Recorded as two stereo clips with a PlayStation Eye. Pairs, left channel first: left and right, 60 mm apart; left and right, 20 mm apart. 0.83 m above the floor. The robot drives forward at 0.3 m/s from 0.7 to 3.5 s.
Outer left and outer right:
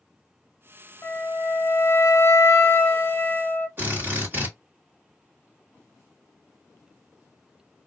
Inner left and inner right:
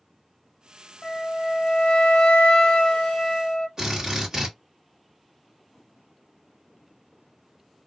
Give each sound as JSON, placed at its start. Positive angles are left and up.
{"t": 1.0, "sound": "a flute", "side_deg": 40, "distance_m": 0.6}
{"t": 3.8, "sound": "a drill", "side_deg": -35, "distance_m": 1.5}